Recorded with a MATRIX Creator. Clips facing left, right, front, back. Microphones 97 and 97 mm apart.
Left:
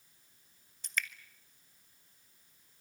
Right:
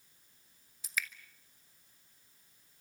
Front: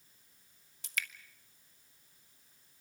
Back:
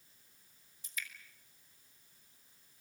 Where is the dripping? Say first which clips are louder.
Left 1 dB, front 6 dB; 5° right, 1.7 m.